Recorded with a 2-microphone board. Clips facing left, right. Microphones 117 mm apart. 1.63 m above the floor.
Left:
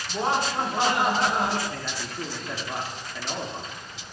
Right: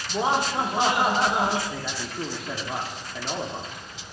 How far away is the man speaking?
About 1.2 m.